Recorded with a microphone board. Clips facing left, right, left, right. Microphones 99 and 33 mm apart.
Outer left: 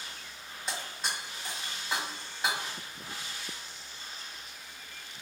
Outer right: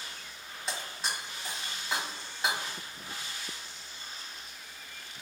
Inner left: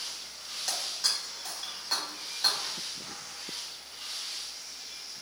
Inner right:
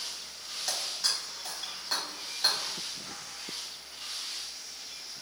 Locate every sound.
0.7 s breaking glass: centre (ahead or behind), 1.6 m